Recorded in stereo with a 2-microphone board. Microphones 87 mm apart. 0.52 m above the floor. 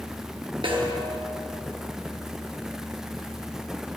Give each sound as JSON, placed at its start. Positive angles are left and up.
{"t": 0.6, "sound": "a snare drum", "side_deg": -75, "distance_m": 2.5}